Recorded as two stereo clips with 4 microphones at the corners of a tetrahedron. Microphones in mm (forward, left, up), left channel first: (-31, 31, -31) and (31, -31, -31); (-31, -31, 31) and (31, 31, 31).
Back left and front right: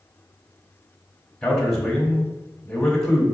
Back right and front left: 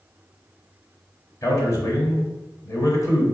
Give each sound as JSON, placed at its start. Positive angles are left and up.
{"t": 1.4, "sound": "a man speaking", "azimuth_deg": -145, "distance_m": 1.1}